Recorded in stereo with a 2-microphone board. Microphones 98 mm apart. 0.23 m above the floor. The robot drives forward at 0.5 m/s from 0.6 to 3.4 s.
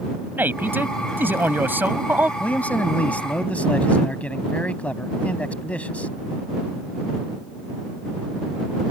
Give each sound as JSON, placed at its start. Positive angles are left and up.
{"t": 0.4, "sound": "a man speaking", "side_deg": -20}
{"t": 2.4, "sound": "a man speaking", "side_deg": 15}